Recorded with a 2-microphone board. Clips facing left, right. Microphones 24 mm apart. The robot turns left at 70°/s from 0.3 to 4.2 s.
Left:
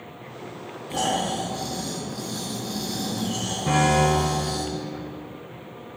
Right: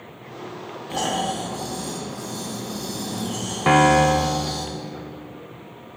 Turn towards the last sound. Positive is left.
turn(degrees=-150)